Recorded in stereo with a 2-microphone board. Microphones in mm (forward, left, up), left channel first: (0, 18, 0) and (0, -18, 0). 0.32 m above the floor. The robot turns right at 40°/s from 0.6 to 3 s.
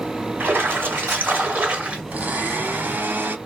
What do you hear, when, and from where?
0.4 s a splash: 95° right, 1.8 m; by 2.0 s 35° right, 1.8 m
2.1 s a blender: 120° right, 1.0 m; by 3.4 s 85° right, 1.0 m